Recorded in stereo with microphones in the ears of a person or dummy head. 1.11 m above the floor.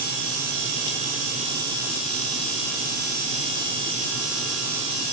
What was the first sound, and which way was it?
Only background noise.